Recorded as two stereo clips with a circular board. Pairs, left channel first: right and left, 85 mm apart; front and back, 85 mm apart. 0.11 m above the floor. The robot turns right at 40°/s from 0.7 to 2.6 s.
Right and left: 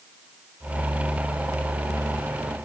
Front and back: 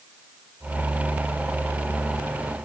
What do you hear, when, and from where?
Only background noise.